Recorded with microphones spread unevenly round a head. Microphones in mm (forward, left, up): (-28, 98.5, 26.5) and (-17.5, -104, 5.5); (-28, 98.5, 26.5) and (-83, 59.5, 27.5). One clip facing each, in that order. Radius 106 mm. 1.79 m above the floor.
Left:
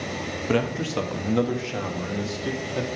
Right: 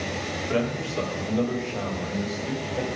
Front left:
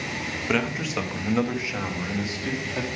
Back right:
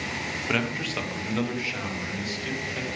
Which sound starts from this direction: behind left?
A man speaking, at 0.5 s.